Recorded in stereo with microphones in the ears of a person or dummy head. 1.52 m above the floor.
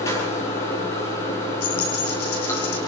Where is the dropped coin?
55° left (ahead or behind), 5 m.